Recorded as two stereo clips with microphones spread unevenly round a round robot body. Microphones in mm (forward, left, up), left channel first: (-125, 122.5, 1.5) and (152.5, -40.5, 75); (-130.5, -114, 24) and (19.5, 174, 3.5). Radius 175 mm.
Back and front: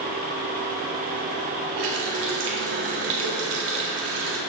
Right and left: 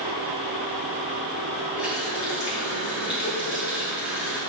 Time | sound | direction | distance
1.8 | a running tap | 25° right | 1.6 m